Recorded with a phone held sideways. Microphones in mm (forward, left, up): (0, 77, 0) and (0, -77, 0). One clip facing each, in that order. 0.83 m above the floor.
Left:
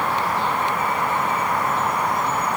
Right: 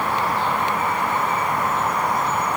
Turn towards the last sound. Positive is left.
No sound to turn to.